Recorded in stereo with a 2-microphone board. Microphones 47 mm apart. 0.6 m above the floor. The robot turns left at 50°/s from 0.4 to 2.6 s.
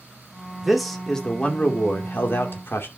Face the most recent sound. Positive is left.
turn(degrees=90)